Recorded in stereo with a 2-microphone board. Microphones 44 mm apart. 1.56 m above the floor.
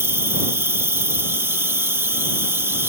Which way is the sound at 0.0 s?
80° right.